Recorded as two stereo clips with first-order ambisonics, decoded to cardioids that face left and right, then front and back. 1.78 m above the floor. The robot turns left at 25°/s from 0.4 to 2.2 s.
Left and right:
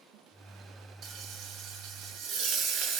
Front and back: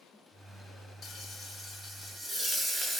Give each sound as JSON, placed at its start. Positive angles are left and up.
{"t": 1.0, "sound": "frying", "azimuth_deg": -55, "distance_m": 0.8}